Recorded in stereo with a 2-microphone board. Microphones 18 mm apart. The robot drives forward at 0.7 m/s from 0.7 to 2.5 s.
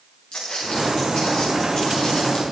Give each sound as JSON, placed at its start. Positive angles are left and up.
{"t": 0.3, "sound": "footsteps", "side_deg": 75, "distance_m": 7.0}